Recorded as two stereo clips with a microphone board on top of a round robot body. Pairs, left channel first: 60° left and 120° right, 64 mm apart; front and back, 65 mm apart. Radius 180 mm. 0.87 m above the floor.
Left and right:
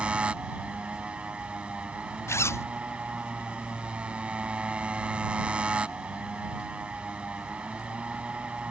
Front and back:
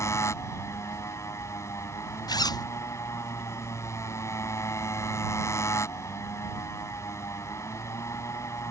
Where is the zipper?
15° left.